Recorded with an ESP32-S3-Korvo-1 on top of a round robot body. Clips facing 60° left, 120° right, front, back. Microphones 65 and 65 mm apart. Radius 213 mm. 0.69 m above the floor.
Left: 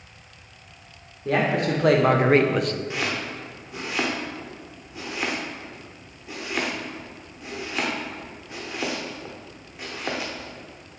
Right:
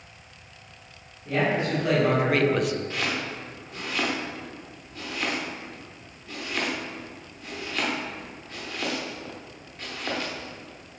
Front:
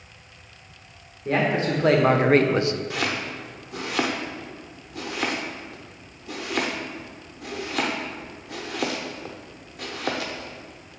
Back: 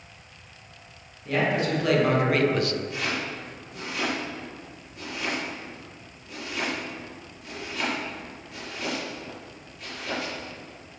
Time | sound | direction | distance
1.2 | a man speaking | 50° left | 1.7 m
2.9 | chopping | 15° right | 0.7 m